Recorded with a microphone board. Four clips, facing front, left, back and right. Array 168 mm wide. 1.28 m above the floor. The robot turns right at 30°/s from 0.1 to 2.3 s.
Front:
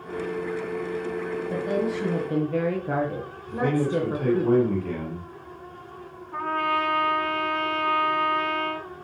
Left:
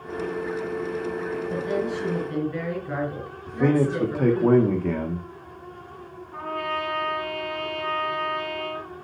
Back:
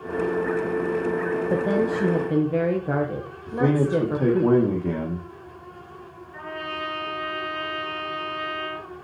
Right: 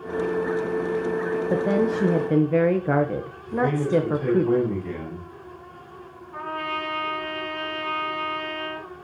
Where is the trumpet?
5° right, 4 m.